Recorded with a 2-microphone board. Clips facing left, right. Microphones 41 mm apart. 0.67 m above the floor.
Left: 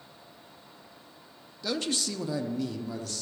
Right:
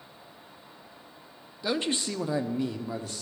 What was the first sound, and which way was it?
A man speaking, 20° right (ahead or behind).